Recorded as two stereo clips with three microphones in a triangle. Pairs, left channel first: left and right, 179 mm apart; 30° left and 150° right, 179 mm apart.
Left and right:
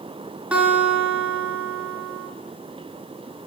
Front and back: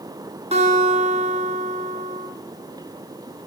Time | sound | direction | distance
0.5 | a guitar | 170° right | 2.0 m